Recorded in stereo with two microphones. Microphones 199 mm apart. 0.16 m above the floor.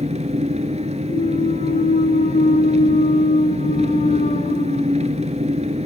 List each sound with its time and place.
0.0 s an engine running: 35° right (ahead or behind), 1.4 m
1.1 s a clunk: 45° left (ahead or behind), 0.5 m